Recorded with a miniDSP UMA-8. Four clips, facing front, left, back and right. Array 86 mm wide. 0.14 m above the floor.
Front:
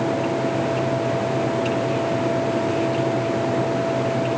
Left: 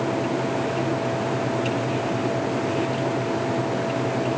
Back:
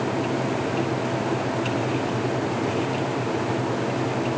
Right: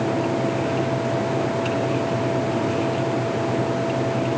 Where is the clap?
I don't hear a clap.